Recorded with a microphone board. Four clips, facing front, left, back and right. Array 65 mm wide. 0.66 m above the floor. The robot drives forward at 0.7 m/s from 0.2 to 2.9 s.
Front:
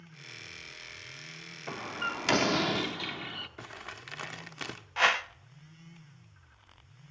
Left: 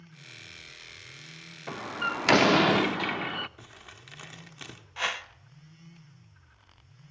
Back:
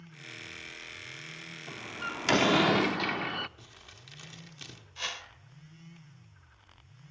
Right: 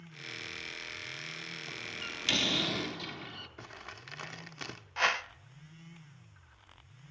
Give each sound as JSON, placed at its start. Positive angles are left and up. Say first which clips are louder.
{"t": 1.7, "sound": "a door slam", "louder": "left 15 dB, front 4 dB", "azimuth_deg": 50, "distance_m": 0.7}
{"t": 3.6, "sound": "crumpling", "louder": "right 3 dB, front 10 dB", "azimuth_deg": -20, "distance_m": 1.2}
{"t": 5.0, "sound": "a whoosh", "louder": "right 2 dB, front 14 dB", "azimuth_deg": -10, "distance_m": 0.5}